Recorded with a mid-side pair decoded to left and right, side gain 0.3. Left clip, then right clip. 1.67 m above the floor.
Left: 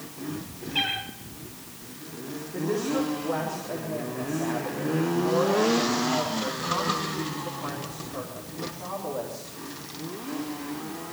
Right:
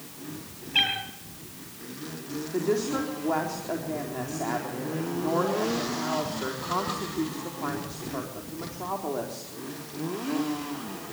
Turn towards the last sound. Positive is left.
turn(degrees=-65)